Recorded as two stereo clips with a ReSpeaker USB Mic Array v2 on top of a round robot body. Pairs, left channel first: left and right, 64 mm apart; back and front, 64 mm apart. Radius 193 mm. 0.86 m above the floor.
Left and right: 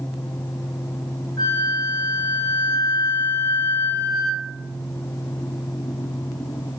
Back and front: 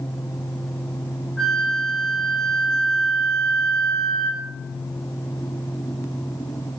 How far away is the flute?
About 4 m.